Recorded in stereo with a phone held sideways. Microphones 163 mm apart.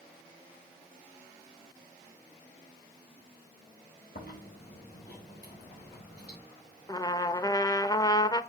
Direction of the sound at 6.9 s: 25° left (ahead or behind).